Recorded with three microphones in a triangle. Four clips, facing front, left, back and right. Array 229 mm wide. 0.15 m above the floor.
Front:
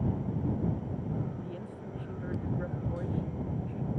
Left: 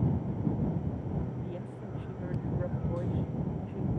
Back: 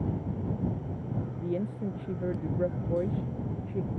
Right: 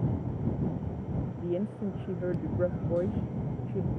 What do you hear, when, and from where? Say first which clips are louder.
1.4 s a woman speaking: right 8 dB, back 9 dB; 130° right; by 3.9 s 135° right